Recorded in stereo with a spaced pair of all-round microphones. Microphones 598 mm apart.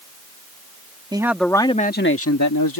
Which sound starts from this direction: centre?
A man speaking, at 1.1 s.